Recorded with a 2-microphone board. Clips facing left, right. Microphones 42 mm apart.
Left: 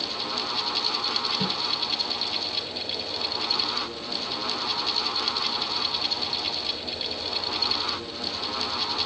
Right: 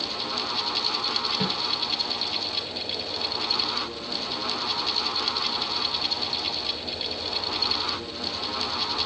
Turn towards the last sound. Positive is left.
turn(degrees=-30)  # may be behind; listen again after turning